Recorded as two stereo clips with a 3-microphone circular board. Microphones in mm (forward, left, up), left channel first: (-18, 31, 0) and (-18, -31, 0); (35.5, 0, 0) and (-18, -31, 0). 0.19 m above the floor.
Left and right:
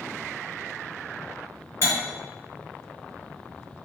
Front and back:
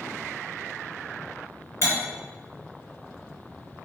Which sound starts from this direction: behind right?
Cutlery clinking, at 1.8 s.